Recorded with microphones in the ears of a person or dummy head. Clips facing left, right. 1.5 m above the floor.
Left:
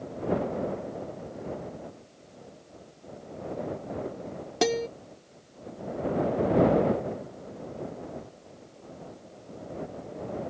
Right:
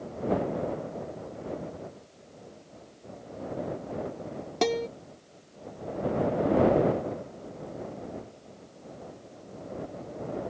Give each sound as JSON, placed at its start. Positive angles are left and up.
{"t": 4.6, "sound": "a guitar", "side_deg": 10}